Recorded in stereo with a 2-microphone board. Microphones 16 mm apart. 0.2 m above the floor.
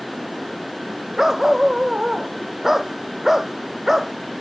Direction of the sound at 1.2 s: 30° right (ahead or behind).